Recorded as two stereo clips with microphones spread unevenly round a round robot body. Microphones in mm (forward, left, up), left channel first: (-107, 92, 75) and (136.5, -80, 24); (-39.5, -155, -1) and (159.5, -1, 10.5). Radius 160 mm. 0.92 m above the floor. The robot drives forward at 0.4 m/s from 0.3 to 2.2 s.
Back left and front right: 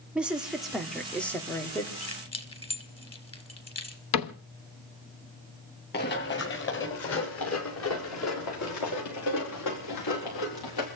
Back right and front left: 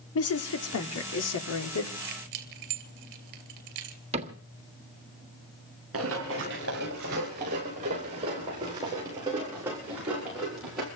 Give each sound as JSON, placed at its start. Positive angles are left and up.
{"t": 0.1, "sound": "a woman speaking", "azimuth_deg": -120, "distance_m": 2.5}
{"t": 2.0, "sound": "keys jangling", "azimuth_deg": 70, "distance_m": 2.5}
{"t": 4.1, "sound": "a cupboard door", "azimuth_deg": 110, "distance_m": 1.3}
{"t": 5.9, "sound": "running footsteps", "azimuth_deg": 90, "distance_m": 6.0}